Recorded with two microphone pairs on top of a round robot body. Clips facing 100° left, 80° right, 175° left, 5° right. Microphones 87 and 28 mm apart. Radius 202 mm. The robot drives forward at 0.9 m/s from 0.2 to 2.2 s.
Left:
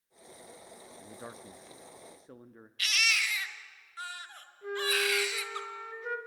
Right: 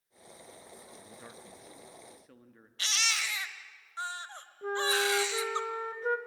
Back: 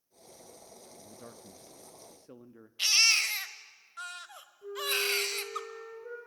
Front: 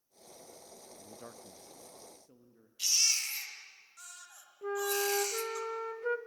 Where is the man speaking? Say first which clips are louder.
Left 4 dB, front 1 dB; 45° left, 0.9 m; by 2.7 s 160° left, 1.2 m.